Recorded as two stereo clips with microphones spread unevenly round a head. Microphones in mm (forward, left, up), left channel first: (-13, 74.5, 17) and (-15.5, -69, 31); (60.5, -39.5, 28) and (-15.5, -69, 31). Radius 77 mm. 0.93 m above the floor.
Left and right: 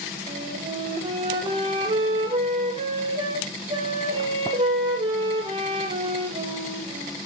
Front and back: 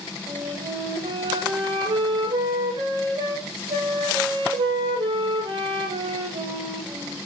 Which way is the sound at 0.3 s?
140° right.